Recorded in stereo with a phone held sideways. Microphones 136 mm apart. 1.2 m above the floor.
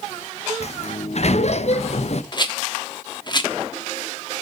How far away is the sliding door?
About 0.6 m.